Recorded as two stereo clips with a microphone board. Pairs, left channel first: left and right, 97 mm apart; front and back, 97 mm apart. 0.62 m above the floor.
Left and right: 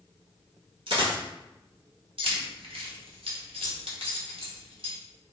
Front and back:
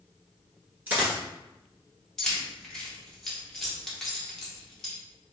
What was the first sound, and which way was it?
A dropped coin, 110° right.